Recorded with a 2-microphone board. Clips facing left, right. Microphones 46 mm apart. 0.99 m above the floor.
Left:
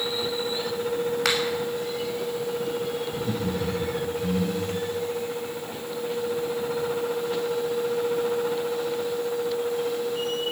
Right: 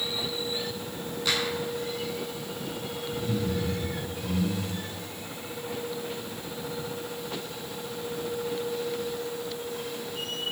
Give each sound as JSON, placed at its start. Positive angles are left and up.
{"t": 1.2, "sound": "a finger snap", "side_deg": 85, "distance_m": 6.0}
{"t": 3.1, "sound": "laughter", "side_deg": 85, "distance_m": 7.0}